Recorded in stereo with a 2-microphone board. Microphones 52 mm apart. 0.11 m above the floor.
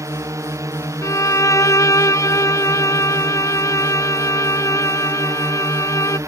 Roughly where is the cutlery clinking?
No cutlery clinking in this recording.